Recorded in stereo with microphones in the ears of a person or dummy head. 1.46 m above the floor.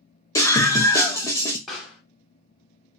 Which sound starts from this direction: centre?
A pop, at 1.7 s.